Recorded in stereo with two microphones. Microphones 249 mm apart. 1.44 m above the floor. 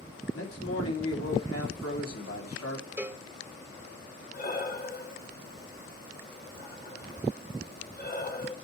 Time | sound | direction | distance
0.3 | a man speaking | 70° left (ahead or behind) | 3.5 m
3.0 | a cowbell | 10° right (ahead or behind) | 0.9 m
4.3 | breathing | 35° left (ahead or behind) | 2.5 m